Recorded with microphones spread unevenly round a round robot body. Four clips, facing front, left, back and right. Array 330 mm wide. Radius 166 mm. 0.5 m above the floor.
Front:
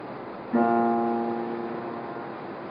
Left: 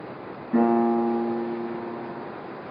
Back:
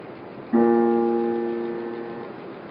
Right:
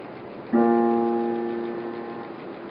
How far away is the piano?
About 1.9 m.